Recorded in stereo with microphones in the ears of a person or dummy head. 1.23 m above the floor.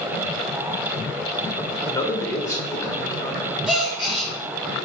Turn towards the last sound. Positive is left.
turn(degrees=-5)  # may be behind; listen again after turning